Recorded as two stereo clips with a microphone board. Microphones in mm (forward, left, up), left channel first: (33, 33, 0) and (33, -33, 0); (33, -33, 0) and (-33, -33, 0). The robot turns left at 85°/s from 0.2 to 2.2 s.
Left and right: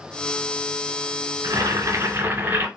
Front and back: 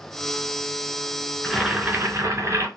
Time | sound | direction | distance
1.4 | boiling | 80° right | 1.6 m